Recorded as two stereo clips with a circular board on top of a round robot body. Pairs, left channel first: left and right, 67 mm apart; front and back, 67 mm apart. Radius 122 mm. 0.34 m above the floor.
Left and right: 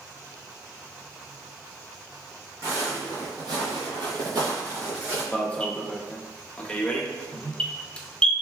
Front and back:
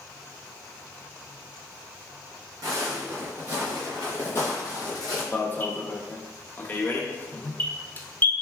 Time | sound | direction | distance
2.6 | footsteps | 145° right | 0.9 m
5.3 | an alarm | 30° left | 0.5 m